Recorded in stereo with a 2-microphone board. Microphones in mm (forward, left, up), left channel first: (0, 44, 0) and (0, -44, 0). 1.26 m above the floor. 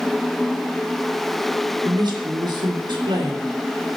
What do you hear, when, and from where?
1.9 s a woman speaking: 55° right (ahead or behind), 3 m; by 4.0 s 65° right (ahead or behind), 4 m